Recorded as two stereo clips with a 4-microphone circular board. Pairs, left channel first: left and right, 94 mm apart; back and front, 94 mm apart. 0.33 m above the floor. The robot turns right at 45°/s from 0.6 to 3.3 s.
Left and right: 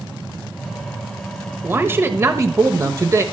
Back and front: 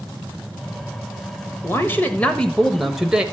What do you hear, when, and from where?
1.6 s a man speaking: 145° right, 1.3 m; by 3.2 s 70° right, 1.3 m